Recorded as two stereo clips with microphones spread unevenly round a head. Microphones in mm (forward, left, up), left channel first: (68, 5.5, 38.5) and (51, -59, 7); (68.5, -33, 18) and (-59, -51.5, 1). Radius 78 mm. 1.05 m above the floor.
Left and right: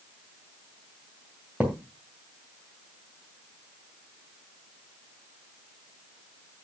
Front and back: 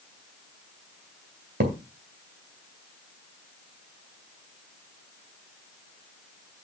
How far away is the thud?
About 2.5 m.